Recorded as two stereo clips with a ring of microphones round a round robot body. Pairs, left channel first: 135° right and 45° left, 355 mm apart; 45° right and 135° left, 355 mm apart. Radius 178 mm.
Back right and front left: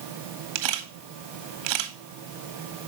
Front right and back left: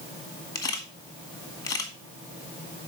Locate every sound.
0.6 s a camera shutter: 35° left, 2 m